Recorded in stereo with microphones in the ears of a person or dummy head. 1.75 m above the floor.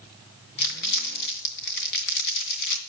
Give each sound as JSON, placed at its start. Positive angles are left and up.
{"t": 0.6, "sound": "crumpling", "side_deg": 55, "distance_m": 2.5}